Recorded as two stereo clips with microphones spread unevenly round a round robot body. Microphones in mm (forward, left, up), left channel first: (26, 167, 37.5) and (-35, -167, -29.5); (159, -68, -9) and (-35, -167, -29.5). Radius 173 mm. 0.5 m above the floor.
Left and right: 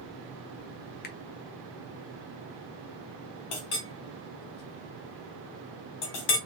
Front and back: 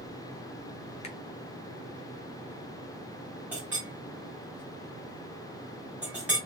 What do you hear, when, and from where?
1.0 s a finger snap: 30° left, 0.5 m
3.5 s a clink: 125° left, 1.1 m